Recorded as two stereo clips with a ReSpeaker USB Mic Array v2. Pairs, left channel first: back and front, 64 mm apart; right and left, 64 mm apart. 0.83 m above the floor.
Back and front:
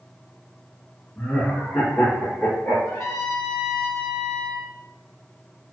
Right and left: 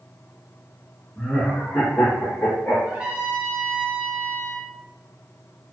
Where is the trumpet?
155° left, 0.8 m.